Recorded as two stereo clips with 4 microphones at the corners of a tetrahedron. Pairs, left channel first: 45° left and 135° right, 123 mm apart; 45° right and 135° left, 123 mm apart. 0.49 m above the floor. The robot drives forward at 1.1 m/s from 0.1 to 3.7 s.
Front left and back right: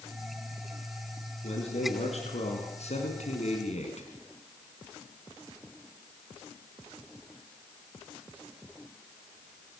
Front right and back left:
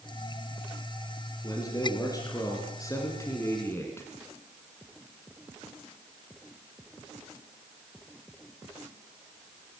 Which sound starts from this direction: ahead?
A man speaking, at 1.4 s.